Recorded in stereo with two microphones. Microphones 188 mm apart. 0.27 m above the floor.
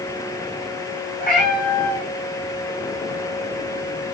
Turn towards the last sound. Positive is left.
turn(degrees=50)  # may be behind; listen again after turning